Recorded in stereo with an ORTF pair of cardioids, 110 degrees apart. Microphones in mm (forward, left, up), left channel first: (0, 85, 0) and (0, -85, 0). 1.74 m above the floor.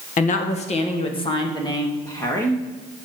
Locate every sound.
0.2 s a woman speaking: 50° left, 1.7 m; by 2.6 s 15° left, 3 m